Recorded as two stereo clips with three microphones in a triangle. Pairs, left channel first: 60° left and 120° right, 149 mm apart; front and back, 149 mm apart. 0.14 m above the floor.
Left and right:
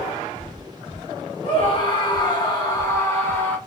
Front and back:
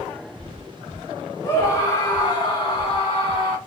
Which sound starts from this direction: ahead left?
A scream, at 1.4 s.